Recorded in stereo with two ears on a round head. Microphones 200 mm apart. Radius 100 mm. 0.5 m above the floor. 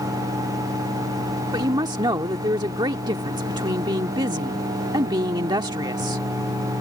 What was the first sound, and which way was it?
A woman speaking, 20° right (ahead or behind).